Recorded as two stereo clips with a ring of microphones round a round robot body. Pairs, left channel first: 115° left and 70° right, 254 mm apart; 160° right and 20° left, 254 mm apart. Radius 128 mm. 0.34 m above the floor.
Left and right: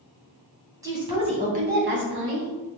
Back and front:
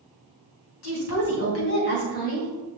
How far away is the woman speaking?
About 2.5 m.